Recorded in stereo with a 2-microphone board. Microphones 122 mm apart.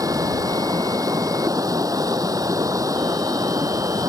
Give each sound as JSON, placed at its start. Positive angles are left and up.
{"t": 0.0, "sound": "running water", "side_deg": -30}